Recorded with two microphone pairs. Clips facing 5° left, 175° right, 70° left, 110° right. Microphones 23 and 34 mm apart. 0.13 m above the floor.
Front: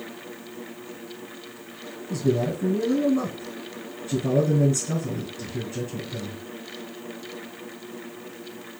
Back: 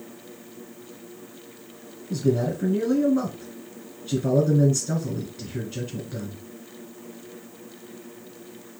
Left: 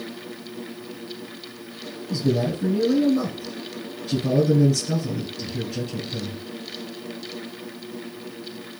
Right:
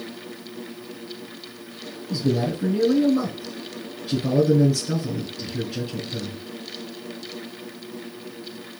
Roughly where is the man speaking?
Behind.